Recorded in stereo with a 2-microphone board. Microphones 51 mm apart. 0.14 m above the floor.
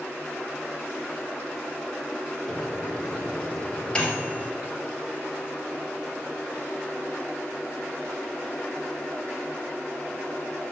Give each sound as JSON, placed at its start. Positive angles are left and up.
{"t": 2.5, "sound": "a microwave", "side_deg": 20, "distance_m": 2.0}